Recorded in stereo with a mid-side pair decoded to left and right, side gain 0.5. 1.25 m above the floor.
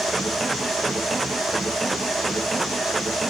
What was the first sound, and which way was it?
A machine running, 25° right.